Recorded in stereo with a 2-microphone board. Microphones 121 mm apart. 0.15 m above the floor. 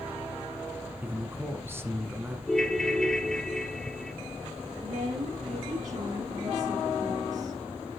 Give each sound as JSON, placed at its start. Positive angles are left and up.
{"t": 1.0, "sound": "a man speaking", "side_deg": -15, "distance_m": 1.9}
{"t": 2.5, "sound": "a ringtone", "side_deg": 5, "distance_m": 1.3}
{"t": 4.8, "sound": "a woman speaking", "side_deg": -65, "distance_m": 4.0}